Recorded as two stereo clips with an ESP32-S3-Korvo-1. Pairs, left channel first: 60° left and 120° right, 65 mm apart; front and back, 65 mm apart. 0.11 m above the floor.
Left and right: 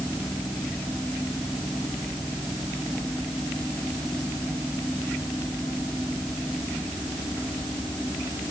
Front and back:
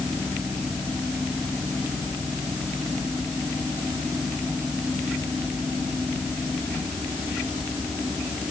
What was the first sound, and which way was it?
Only background noise.